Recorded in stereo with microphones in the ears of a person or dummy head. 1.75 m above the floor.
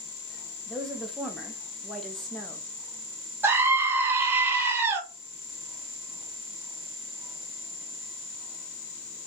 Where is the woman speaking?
Centre (ahead or behind), 0.9 m.